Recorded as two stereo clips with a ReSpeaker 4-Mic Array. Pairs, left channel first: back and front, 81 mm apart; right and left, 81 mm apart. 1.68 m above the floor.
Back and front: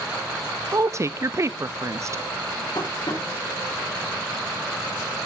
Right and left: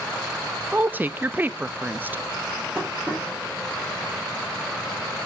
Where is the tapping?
160° left, 4.5 m.